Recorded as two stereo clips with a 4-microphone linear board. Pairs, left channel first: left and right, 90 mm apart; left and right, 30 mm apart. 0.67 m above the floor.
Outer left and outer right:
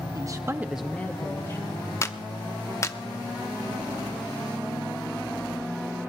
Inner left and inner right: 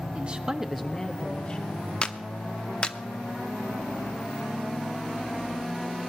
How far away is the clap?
About 0.7 m.